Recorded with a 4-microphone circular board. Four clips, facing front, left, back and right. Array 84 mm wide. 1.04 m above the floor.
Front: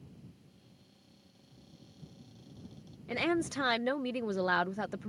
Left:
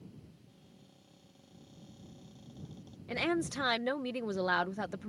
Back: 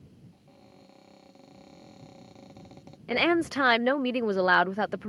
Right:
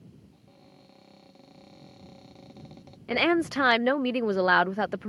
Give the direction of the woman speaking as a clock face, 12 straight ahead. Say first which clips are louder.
Right 9 dB, back 7 dB; 5 o'clock.